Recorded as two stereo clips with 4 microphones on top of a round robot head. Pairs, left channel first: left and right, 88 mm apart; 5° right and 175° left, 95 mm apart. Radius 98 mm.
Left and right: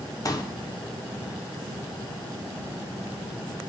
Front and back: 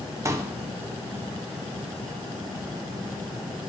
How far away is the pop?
About 1.1 m.